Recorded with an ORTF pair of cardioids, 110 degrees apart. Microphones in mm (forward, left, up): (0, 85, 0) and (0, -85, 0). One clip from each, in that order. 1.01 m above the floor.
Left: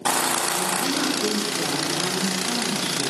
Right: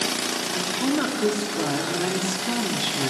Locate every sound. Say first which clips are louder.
0.5 s a woman speaking: left 1 dB; 40° right, 2.5 m